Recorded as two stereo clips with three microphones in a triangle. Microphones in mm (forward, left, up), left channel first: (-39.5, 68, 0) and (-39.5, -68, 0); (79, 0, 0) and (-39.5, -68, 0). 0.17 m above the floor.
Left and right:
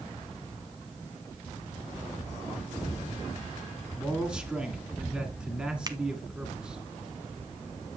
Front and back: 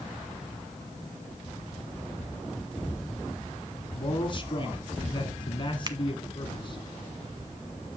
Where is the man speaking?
10° right, 1.4 m.